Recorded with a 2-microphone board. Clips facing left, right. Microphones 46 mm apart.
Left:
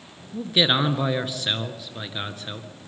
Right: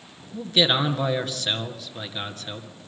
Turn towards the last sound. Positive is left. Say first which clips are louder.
# even
turn(degrees=10)  # may be behind; listen again after turning